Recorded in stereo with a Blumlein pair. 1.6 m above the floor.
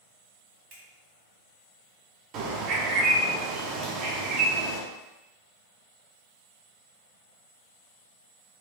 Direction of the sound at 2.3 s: 35° right.